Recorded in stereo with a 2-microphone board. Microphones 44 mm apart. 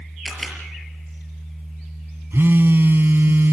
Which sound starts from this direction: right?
A phone buzzing, at 2.3 s.